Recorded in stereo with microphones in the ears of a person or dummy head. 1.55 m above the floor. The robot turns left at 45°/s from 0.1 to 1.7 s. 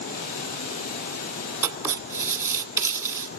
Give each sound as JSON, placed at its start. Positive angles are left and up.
{"t": 1.6, "sound": "writing", "side_deg": -15, "distance_m": 1.7}